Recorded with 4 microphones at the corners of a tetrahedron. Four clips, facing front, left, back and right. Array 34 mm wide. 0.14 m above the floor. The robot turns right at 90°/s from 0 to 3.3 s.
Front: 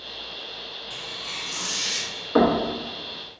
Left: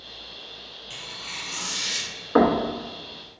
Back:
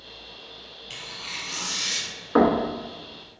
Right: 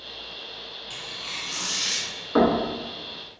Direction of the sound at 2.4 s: 135° left.